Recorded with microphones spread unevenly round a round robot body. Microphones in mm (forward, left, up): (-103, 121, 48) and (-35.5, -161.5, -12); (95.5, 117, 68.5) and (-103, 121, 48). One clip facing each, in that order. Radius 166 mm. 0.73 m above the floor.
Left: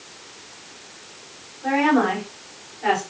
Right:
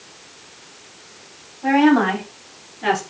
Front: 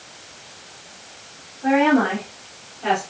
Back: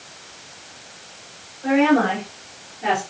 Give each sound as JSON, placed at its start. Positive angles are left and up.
{"t": 1.6, "sound": "a woman speaking", "azimuth_deg": -75, "distance_m": 5.5}